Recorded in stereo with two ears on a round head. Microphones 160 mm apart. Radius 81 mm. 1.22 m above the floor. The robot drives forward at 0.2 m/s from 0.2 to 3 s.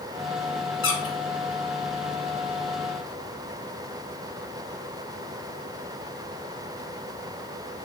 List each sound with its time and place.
0.8 s a squeak: 75° left (ahead or behind), 1.6 m